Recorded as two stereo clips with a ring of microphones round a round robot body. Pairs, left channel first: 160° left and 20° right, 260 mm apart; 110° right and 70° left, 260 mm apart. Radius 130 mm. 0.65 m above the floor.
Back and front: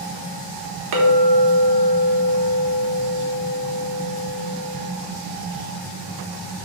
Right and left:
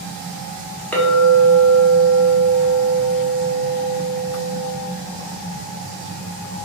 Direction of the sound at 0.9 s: 30° right.